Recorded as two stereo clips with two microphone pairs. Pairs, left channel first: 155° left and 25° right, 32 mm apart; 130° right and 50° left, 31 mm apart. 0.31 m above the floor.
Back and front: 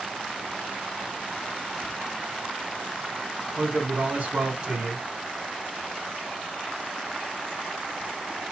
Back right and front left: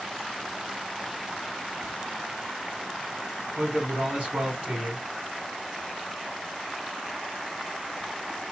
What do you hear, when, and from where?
3.6 s a man speaking: 15° left, 2.5 m